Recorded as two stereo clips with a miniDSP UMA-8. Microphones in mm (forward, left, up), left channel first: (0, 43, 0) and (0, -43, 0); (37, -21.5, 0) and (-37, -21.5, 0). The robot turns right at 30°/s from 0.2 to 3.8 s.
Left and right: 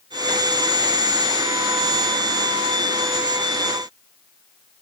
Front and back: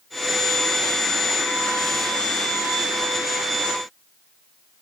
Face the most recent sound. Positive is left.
No sound to turn to.